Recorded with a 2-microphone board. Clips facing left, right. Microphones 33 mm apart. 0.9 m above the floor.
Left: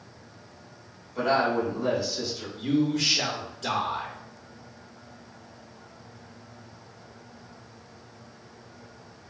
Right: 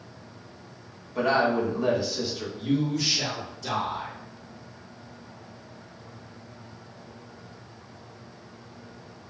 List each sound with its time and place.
1.1 s a woman speaking: 20° right (ahead or behind), 1.6 m
2.6 s a man speaking: 55° left (ahead or behind), 1.5 m